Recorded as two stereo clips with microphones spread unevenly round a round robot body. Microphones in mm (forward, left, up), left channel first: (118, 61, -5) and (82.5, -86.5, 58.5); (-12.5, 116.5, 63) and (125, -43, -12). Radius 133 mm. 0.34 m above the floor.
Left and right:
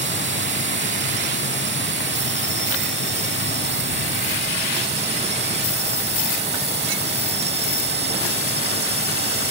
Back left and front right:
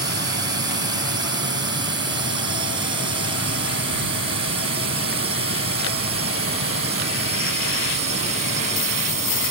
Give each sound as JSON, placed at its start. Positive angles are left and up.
{"t": 0.0, "sound": "a drone", "azimuth_deg": -110}